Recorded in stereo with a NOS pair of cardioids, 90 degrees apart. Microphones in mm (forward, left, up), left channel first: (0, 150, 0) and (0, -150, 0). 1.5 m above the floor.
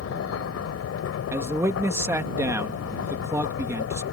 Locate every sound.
0.0 s a machine running: 55° left
1.3 s a man speaking: 10° right